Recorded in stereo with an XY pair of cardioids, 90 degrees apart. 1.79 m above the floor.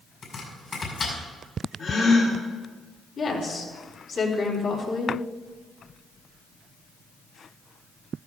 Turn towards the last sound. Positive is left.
turn(degrees=55)